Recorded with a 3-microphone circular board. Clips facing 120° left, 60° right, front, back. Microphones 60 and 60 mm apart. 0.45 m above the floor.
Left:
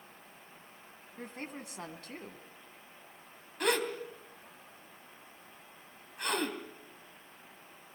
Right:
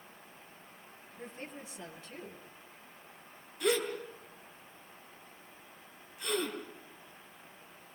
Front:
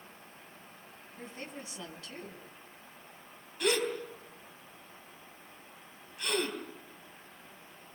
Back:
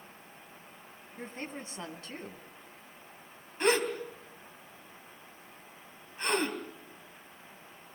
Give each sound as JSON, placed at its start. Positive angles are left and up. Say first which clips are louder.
{"t": 1.2, "sound": "a woman speaking", "louder": "left 2 dB, back 3 dB", "azimuth_deg": 130, "distance_m": 3.5}
{"t": 3.6, "sound": "a gasp", "louder": "even, back 3 dB", "azimuth_deg": 130, "distance_m": 3.0}